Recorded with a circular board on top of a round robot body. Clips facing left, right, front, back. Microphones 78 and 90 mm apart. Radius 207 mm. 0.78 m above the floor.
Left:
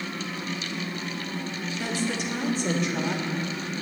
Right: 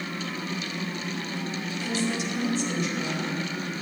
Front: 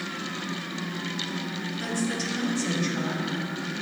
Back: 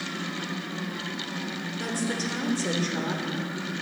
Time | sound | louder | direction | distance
1.8 | a woman speaking | even, even | 130° left | 3.5 m